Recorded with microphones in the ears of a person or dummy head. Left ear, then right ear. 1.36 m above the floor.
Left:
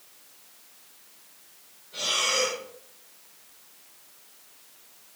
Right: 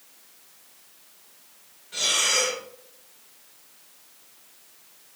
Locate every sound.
1.9 s breathing: 65° right (ahead or behind), 3.5 m